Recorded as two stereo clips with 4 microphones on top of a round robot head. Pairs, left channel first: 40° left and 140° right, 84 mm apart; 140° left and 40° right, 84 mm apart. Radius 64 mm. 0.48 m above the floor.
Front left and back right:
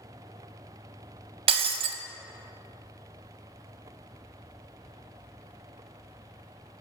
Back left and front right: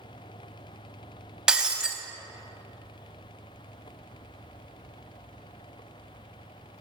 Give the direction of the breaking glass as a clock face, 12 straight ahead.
4 o'clock.